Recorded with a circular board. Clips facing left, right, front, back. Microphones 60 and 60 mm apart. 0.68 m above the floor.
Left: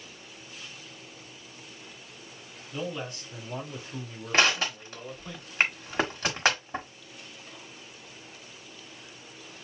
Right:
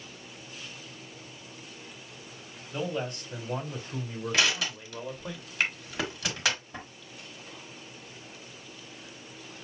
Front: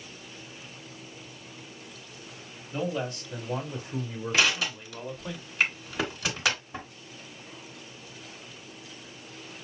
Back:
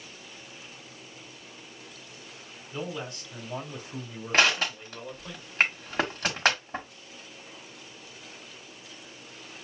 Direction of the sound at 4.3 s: 140° left.